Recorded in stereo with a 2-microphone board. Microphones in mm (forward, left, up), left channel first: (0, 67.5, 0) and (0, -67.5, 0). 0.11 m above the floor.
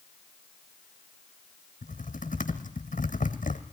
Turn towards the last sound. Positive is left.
turn(degrees=80)